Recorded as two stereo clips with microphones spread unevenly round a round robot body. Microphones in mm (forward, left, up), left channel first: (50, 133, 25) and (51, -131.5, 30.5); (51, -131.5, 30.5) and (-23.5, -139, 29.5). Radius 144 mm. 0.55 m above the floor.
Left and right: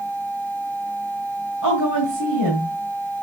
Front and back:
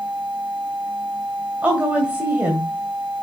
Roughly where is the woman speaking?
Right.